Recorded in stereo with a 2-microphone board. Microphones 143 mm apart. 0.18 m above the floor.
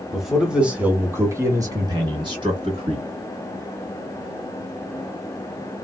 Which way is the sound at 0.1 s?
Centre (ahead or behind).